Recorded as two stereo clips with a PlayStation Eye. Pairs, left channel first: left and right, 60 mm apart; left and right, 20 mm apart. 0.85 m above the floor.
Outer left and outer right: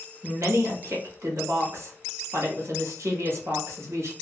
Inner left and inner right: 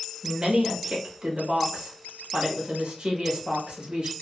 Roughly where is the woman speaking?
Right.